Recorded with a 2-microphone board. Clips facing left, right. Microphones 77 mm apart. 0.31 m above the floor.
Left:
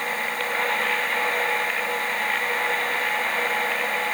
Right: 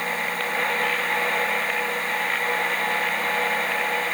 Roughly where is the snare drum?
I don't hear a snare drum.